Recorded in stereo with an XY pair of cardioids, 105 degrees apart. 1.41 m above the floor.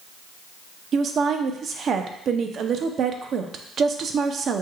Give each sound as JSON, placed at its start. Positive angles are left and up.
{"t": 0.9, "sound": "a woman speaking", "azimuth_deg": -55, "distance_m": 0.6}